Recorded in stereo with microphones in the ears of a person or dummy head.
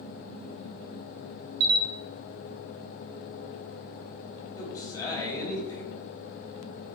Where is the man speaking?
20° left (ahead or behind), 3 m.